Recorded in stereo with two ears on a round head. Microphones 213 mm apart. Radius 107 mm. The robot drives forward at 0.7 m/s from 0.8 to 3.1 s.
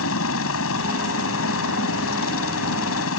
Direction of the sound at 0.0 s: 60° left (ahead or behind).